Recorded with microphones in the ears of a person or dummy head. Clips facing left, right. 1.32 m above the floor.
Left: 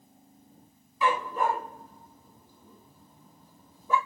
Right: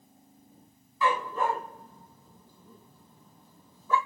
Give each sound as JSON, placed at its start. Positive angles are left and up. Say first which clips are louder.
{"t": 1.0, "sound": "a dog barking", "louder": "left 1 dB", "side_deg": 15, "distance_m": 3.5}